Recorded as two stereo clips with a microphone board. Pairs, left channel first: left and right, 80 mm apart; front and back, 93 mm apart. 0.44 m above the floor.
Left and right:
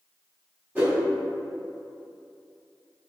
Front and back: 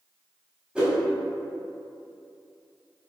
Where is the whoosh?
125° right, 1.5 m.